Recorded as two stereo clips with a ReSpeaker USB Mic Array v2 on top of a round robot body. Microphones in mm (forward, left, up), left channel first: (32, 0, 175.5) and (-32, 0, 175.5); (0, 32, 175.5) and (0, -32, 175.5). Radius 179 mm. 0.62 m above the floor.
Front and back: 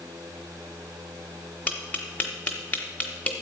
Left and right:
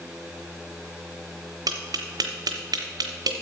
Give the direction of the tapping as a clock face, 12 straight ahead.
2 o'clock.